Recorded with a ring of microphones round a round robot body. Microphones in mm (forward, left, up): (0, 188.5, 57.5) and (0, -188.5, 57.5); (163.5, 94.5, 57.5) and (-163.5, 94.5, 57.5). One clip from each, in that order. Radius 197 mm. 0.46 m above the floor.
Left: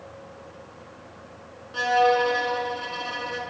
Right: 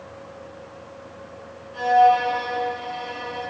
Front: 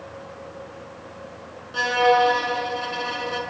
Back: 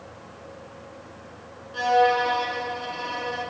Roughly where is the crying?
No crying in this recording.